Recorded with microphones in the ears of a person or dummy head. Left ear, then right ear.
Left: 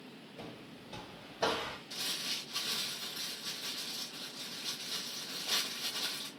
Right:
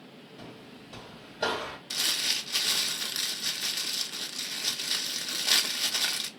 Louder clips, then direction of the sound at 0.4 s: Right 1 dB; 20° left (ahead or behind).